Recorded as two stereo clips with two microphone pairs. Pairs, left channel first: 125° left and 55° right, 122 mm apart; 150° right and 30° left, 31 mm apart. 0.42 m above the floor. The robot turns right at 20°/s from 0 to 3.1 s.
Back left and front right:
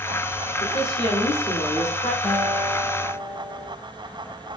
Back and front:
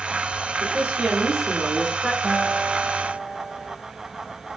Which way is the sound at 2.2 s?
80° left.